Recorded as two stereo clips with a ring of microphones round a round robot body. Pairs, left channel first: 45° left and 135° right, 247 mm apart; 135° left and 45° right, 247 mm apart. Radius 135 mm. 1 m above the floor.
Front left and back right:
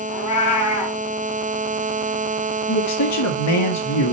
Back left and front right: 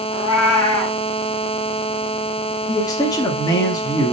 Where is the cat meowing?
60° left, 3.5 m.